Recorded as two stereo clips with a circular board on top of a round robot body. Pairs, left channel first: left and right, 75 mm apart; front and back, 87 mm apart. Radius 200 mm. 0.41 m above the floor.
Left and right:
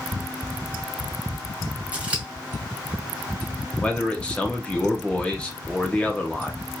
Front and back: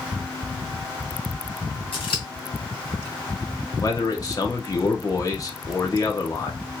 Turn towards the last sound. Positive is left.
turn(degrees=20)